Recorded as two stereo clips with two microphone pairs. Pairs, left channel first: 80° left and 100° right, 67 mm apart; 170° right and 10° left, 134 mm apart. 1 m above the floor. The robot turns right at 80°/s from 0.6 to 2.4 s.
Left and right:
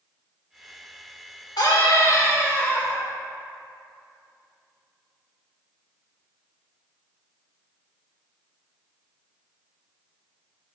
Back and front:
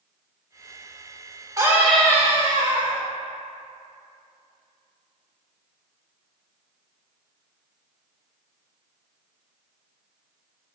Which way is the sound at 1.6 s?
75° left.